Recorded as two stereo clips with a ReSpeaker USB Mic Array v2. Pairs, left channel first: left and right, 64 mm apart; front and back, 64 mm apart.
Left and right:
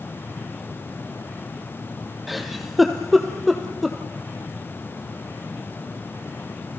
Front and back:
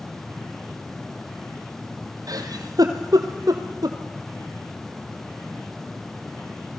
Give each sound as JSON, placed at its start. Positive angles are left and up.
{"t": 2.3, "sound": "a giggle", "azimuth_deg": 180, "distance_m": 2.0}